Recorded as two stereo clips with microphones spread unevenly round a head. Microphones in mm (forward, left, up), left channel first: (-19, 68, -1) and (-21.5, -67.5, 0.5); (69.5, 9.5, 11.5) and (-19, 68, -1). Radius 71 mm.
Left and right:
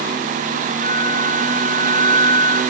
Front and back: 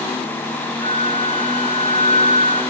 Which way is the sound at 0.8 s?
115° left.